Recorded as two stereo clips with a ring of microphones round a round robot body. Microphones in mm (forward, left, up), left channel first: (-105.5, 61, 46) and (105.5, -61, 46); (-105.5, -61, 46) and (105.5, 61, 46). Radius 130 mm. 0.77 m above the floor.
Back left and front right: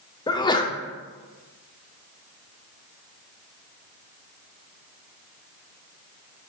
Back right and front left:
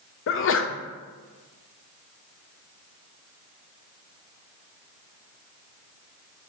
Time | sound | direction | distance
0.3 | a sneeze | 140° right | 0.6 m